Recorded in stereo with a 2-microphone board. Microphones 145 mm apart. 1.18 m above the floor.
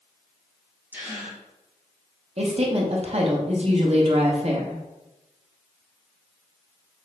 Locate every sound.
0.9 s a gasp: 10° right (ahead or behind), 1.2 m
2.4 s a woman speaking: 45° right (ahead or behind), 0.9 m